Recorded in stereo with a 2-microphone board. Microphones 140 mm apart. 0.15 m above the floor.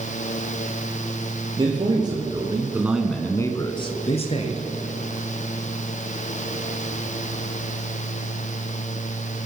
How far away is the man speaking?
About 2.5 m.